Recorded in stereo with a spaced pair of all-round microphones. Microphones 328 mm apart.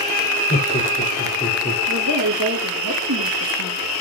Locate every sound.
0.5 s laughter: 30° left (ahead or behind), 3.5 m; by 1.8 s 25° left (ahead or behind), 3 m
1.9 s a woman speaking: 60° right (ahead or behind), 3 m